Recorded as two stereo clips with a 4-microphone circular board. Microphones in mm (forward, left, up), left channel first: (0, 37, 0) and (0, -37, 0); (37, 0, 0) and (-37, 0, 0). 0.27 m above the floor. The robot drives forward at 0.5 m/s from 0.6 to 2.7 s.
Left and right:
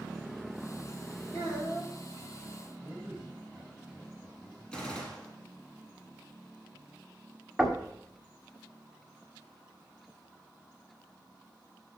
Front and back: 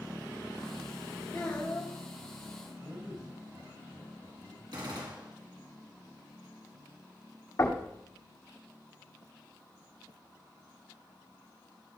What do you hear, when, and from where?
1.3 s a child speaking: 75° left, 5 m; by 1.9 s 80° left, 4.5 m
2.8 s a man speaking: 175° right, 5 m
4.7 s a gunshot: 165° left, 2 m
7.6 s knocking: straight ahead, 1.6 m